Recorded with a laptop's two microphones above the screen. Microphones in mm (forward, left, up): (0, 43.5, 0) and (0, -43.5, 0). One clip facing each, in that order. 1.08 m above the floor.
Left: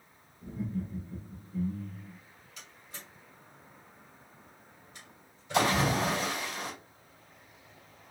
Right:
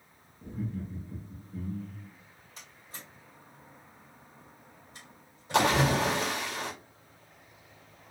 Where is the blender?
No blender in this recording.